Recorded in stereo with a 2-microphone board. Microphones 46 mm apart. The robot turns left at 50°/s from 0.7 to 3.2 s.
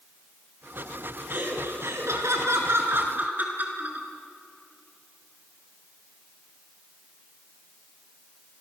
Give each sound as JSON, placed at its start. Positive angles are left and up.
{"t": 1.3, "sound": "laughter", "azimuth_deg": -45, "distance_m": 4.5}